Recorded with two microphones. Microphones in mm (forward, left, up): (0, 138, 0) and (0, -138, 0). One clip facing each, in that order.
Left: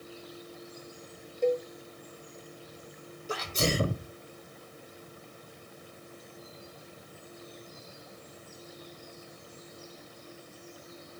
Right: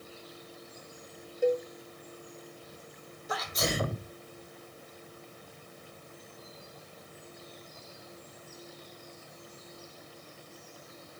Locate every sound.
1.4 s a cowbell: 5° right (ahead or behind), 0.6 m
3.3 s a sneeze: 30° left (ahead or behind), 1.0 m